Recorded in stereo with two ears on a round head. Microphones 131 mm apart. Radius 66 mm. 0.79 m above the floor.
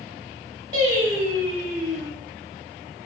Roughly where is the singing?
Right.